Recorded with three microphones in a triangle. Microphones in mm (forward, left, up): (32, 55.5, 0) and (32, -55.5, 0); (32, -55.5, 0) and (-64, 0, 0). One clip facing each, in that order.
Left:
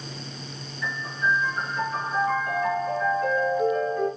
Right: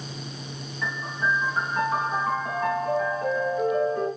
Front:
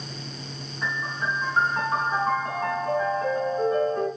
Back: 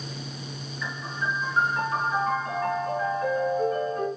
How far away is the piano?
About 3.5 m.